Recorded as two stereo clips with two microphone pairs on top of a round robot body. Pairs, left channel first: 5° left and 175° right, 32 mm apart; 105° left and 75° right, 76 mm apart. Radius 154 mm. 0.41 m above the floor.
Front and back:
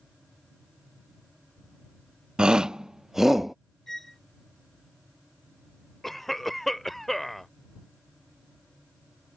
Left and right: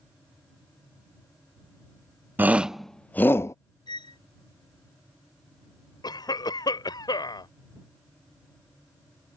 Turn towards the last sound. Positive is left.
turn(degrees=95)